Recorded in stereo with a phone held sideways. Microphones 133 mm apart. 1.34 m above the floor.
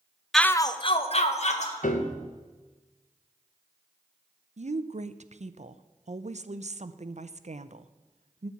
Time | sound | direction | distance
0.3 | a shout | centre (ahead or behind) | 0.6 m
1.8 | a piano | 70° left (ahead or behind) | 1.4 m
4.6 | a woman speaking | 60° right (ahead or behind) | 0.6 m